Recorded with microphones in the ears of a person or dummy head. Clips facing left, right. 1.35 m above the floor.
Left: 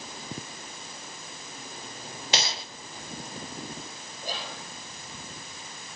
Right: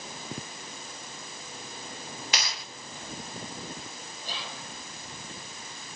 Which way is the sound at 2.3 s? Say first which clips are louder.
Left 6 dB; 25° left (ahead or behind).